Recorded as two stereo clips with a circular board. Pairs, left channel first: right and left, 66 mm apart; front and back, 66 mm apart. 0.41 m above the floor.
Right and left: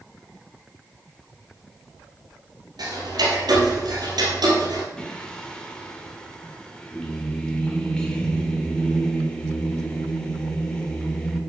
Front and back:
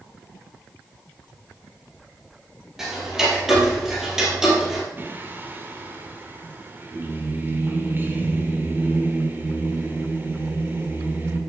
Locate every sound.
2.8 s ticking: 95° left, 2.5 m
5.0 s singing: 160° right, 1.3 m